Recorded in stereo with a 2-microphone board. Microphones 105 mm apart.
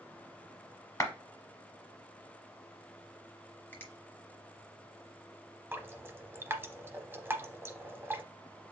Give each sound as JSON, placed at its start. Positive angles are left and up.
{"t": 1.0, "sound": "a clap", "side_deg": 35, "distance_m": 1.1}
{"t": 3.7, "sound": "a finger snap", "side_deg": 20, "distance_m": 1.2}
{"t": 5.7, "sound": "dripping", "side_deg": -20, "distance_m": 0.7}